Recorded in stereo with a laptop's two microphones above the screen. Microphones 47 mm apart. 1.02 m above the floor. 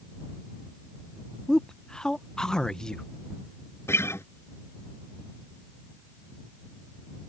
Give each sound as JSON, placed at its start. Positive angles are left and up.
{"t": 1.5, "sound": "a man speaking", "side_deg": 15}
{"t": 3.9, "sound": "a guitar", "side_deg": 55}